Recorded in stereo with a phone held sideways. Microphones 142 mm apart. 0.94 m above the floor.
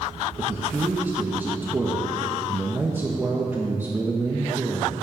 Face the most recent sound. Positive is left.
turn(degrees=-15)  # may be behind; listen again after turning